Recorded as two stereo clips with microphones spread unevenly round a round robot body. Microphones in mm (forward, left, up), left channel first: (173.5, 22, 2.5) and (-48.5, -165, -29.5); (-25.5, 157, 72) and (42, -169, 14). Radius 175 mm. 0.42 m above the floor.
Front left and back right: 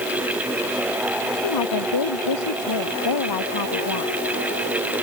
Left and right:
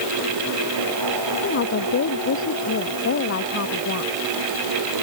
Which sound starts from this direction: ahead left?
A woman speaking, at 1.4 s.